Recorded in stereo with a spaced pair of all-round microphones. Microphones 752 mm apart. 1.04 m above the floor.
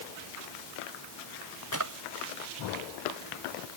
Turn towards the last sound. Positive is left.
turn(degrees=-25)  # may be behind; listen again after turning